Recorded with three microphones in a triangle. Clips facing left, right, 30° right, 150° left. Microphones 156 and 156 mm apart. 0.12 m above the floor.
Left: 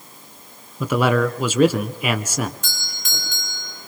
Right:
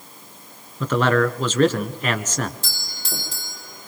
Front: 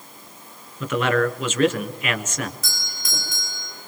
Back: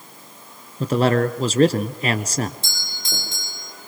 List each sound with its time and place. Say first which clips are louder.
0.8 s a man speaking: even, back 3 dB; 165° left, 1.6 m
2.6 s a doorbell: right 1 dB, back 1 dB; 150° right, 6.5 m